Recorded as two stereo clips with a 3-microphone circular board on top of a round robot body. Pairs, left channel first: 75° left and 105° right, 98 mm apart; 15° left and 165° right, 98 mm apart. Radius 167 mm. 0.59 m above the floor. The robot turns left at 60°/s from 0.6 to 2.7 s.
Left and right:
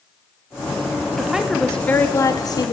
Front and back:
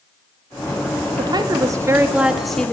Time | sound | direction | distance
1.2 | a woman speaking | straight behind | 0.7 m